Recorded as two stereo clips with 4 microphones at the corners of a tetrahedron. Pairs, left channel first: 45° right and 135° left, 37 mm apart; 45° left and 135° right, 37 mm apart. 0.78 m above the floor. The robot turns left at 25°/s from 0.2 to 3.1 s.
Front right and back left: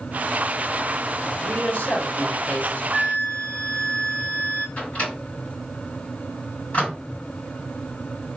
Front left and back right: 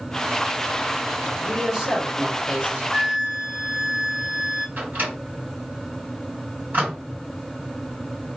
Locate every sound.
1.4 s a woman speaking: 45° right, 2.5 m; by 2.8 s 80° right, 2.5 m
2.9 s a flute: 100° right, 2 m; by 4.7 s 105° right, 2 m
4.8 s a microwave: 100° right, 3.5 m